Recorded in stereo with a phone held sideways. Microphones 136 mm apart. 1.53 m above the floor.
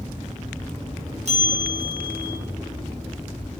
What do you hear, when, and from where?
1.2 s a bell: 55° right (ahead or behind), 0.9 m